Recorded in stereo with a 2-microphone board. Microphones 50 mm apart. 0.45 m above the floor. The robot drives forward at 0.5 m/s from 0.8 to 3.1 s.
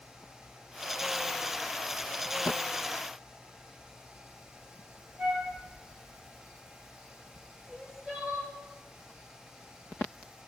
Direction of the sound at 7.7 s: 10° right (ahead or behind).